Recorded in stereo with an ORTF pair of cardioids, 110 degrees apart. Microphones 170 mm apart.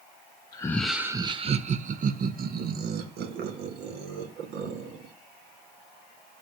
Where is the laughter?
25° left, 0.6 m; by 5.1 s 75° right, 3 m.